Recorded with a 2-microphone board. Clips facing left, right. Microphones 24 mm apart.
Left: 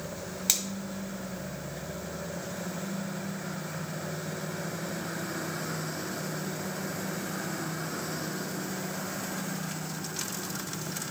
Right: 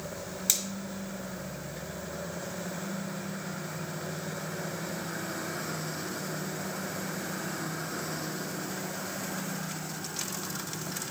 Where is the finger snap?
20° left (ahead or behind), 1.1 m.